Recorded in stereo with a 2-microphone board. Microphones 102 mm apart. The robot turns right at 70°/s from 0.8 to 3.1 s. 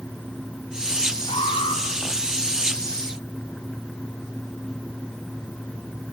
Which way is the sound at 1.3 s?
70° left.